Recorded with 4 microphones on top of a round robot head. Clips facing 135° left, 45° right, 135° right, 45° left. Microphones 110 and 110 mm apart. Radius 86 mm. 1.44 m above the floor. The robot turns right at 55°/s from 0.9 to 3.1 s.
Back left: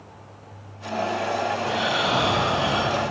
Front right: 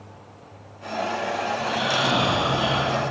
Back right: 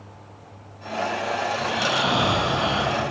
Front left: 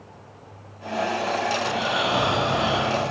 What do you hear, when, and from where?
1.6 s snoring: 100° right, 3 m; by 3.0 s 20° right, 3 m